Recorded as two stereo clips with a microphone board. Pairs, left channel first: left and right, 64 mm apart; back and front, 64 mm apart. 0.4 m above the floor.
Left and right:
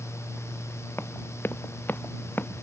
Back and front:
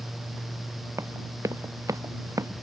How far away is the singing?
I don't hear singing.